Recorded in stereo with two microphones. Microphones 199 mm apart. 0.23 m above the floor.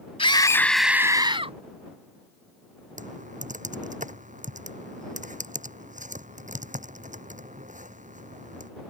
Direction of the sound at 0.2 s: 30° left (ahead or behind).